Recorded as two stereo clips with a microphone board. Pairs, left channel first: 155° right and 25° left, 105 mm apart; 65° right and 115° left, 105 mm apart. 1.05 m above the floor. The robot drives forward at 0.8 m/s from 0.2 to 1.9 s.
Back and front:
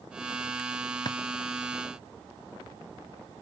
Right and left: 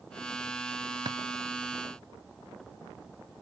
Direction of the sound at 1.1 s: 155° left.